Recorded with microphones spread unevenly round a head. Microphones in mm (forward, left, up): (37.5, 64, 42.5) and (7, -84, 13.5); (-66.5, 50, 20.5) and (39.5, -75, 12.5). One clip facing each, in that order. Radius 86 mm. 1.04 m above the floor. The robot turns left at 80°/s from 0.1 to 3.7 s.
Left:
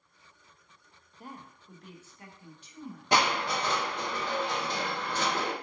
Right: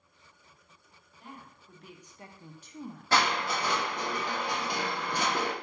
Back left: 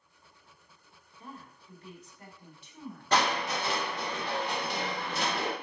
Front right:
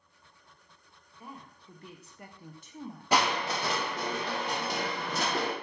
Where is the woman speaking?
30° left, 0.6 m; by 3.1 s 125° right, 0.6 m.